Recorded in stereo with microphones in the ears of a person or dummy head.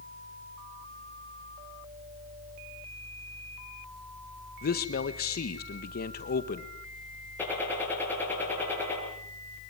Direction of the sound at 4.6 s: 45° left (ahead or behind).